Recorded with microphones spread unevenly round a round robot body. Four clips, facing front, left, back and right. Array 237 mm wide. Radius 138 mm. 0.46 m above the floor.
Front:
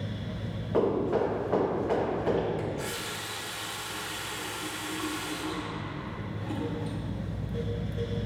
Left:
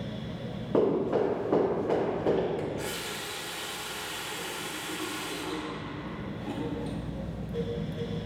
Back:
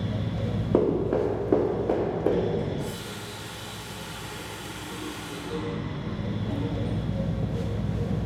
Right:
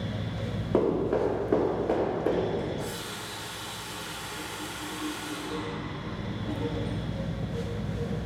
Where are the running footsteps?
Straight behind, 1.5 m; by 2.5 s 175° right, 2.5 m.